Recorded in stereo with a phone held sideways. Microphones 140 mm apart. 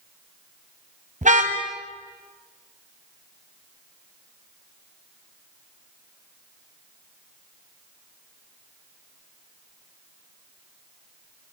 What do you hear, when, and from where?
1.2 s a car horn: 55° right (ahead or behind), 3 m